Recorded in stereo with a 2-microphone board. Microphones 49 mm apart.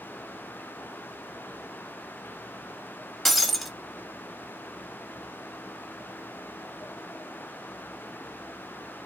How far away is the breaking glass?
About 0.6 m.